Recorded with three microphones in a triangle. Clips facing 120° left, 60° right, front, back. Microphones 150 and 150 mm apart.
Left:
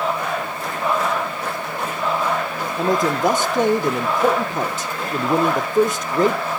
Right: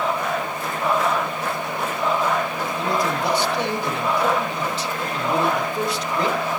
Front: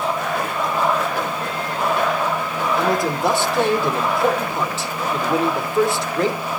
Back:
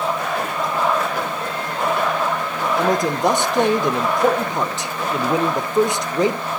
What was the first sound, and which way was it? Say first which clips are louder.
A man speaking: left 5 dB, back 2 dB; 115° left.